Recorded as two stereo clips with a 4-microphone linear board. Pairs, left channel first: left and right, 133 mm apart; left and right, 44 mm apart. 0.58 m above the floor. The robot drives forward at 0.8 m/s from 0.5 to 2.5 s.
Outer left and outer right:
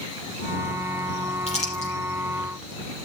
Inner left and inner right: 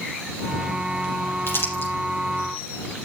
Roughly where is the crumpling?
Left.